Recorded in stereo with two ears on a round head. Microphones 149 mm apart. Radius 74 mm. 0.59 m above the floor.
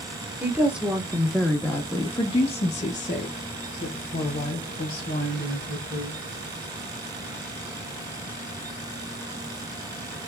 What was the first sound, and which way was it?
A woman speaking, 10° right (ahead or behind).